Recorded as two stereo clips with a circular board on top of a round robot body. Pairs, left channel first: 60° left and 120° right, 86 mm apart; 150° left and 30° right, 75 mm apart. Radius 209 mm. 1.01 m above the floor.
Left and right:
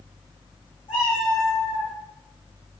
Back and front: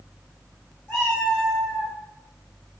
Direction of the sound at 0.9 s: 80° left.